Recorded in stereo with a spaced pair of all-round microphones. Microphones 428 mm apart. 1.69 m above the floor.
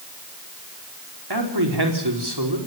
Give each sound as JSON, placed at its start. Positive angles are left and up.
{"t": 1.3, "sound": "a man speaking", "side_deg": -65, "distance_m": 4.5}